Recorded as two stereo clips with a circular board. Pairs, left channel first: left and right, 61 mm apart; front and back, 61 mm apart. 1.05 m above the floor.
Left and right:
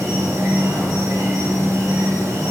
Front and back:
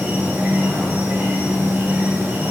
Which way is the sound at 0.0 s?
120° right.